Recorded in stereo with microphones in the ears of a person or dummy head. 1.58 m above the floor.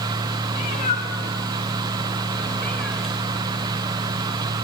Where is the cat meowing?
30° left (ahead or behind), 1.5 m; by 3.1 s 5° left (ahead or behind), 1.8 m.